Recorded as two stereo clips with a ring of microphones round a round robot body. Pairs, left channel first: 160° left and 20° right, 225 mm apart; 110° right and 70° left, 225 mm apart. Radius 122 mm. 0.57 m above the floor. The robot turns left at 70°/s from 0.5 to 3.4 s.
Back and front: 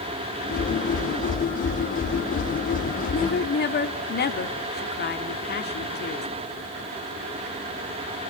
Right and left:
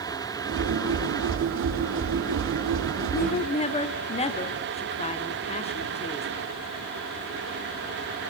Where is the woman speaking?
150° right, 1.8 m; by 6.3 s 170° right, 1.8 m.